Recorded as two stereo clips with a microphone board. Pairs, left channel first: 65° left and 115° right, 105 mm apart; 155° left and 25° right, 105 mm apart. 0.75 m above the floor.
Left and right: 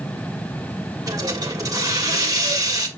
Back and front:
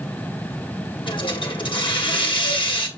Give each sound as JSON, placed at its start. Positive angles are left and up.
{"t": 1.1, "sound": "a hiss", "azimuth_deg": -165, "distance_m": 1.6}